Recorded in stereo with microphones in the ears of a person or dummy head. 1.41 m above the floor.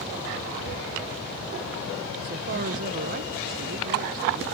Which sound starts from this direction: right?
A woman speaking, at 2.2 s.